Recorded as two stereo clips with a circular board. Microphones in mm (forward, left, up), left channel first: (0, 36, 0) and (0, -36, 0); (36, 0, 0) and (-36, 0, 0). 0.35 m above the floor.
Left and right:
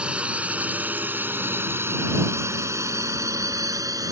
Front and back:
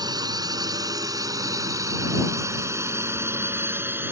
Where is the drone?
165° right; by 4.1 s 120° right.